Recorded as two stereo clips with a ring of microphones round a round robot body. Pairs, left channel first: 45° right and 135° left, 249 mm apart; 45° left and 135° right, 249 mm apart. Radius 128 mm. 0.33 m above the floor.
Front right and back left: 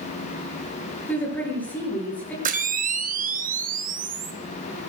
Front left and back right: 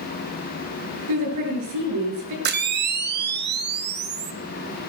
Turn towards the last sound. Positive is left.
turn(degrees=-175)